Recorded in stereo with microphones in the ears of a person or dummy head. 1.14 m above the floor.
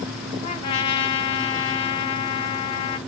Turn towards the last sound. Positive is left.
turn(degrees=40)  # may be behind; listen again after turning